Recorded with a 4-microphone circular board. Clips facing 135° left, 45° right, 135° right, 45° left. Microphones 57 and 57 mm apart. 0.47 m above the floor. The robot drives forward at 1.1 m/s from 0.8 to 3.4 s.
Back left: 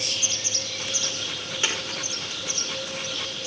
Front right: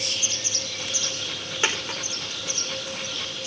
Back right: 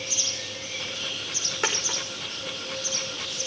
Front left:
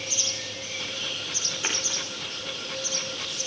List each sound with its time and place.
1.6 s a dropped coin: 110° right, 5 m; by 2.0 s 115° right, 5.5 m